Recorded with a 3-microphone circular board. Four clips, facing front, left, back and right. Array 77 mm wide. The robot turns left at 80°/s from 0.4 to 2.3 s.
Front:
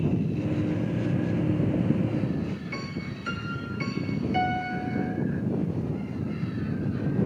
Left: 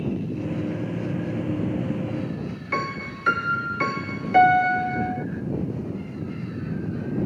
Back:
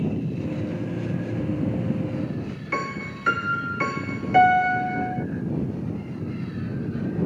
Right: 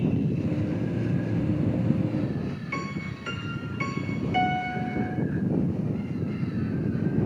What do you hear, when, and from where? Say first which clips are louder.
2.7 s a piano: left 5 dB, back 6 dB; 130° left